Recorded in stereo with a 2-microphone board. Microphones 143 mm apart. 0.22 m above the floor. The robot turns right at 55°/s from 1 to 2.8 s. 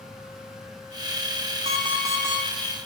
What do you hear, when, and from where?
1.6 s an alarm clock: 55° right, 1.3 m; by 2.5 s 10° right, 1.3 m